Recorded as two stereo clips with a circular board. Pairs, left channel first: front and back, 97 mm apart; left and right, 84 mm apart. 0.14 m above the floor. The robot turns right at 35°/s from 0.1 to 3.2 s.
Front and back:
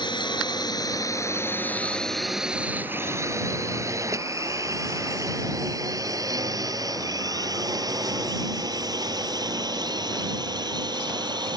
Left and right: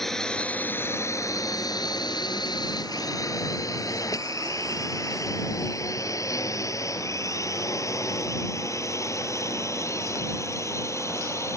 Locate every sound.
0.0 s a drone: 5° left; by 11.6 s 140° left